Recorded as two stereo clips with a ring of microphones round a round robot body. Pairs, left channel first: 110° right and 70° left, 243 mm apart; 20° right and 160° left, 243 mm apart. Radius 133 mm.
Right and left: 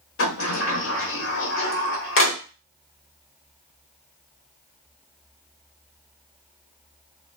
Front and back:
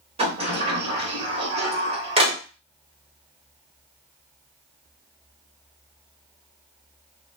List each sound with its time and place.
0.2 s a sliding door: 140° right, 1.0 m